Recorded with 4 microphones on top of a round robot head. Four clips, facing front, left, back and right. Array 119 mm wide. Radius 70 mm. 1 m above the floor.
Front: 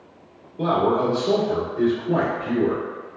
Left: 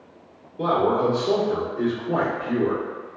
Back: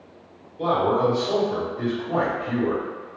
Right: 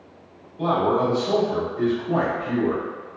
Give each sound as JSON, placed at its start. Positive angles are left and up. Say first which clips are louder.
{"t": 0.6, "sound": "a man speaking", "louder": "even, front 1 dB", "azimuth_deg": 0, "distance_m": 1.7}